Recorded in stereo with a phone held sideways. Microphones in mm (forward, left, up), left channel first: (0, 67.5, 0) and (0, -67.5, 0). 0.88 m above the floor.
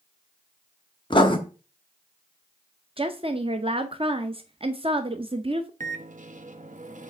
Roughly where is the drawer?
No drawer in this recording.